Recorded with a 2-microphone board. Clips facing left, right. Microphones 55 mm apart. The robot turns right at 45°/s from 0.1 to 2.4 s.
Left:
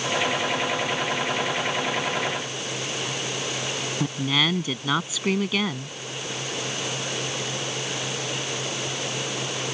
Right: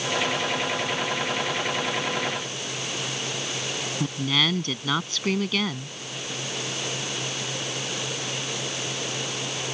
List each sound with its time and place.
4.0 s a woman speaking: 5° left (ahead or behind)